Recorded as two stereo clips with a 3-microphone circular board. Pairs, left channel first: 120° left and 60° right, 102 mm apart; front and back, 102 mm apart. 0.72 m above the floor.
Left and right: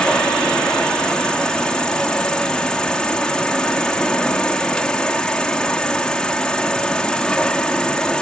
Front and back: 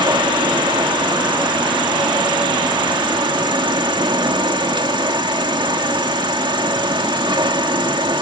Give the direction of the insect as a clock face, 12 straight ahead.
5 o'clock.